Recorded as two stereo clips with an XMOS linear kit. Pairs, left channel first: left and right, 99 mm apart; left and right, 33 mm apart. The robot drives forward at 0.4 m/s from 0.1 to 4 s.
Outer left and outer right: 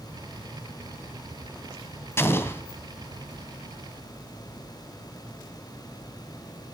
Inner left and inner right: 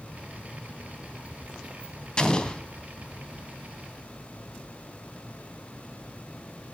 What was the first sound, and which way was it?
An explosion, 25° left (ahead or behind).